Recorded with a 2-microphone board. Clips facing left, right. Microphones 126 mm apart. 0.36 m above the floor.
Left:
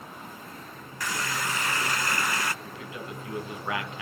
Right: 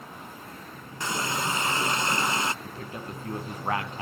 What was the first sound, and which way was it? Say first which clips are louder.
A running tap: right 2 dB; 25° right (ahead or behind).